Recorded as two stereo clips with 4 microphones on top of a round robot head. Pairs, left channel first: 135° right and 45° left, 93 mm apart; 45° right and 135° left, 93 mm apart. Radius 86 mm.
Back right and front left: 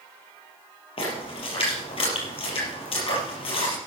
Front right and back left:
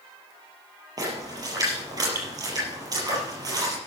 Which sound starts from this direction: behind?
A splash, at 1.0 s.